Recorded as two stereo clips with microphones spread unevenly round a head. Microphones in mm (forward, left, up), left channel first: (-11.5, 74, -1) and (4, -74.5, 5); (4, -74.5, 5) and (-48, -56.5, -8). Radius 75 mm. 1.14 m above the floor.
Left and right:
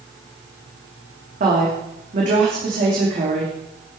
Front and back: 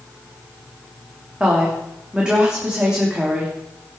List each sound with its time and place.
1.4 s a woman speaking: 125° right, 3 m